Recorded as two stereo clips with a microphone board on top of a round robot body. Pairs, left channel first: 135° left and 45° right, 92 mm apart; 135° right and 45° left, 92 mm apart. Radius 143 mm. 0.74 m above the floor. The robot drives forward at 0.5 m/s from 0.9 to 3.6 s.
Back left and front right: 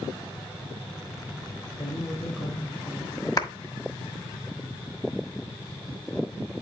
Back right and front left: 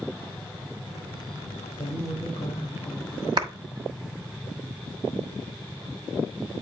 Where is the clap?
85° left, 1.5 m; by 3.5 s 90° left, 1.5 m.